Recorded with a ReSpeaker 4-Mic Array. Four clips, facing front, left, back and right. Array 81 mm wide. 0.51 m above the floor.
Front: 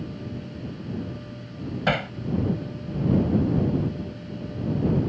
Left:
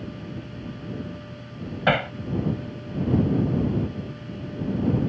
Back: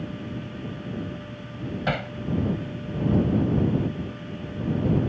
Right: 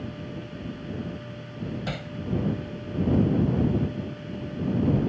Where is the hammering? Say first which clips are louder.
Left 12 dB, front 4 dB; 75° left.